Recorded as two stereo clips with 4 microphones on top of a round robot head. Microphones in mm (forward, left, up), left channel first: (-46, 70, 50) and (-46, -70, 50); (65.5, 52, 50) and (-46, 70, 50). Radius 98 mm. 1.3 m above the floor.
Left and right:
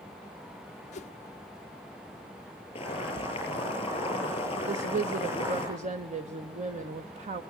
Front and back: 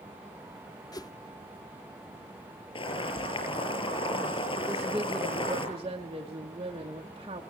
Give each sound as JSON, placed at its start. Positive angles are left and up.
{"t": 0.9, "sound": "a whoosh", "azimuth_deg": 50, "distance_m": 0.6}
{"t": 2.8, "sound": "boiling", "azimuth_deg": 25, "distance_m": 7.5}
{"t": 4.7, "sound": "a woman speaking", "azimuth_deg": -125, "distance_m": 1.2}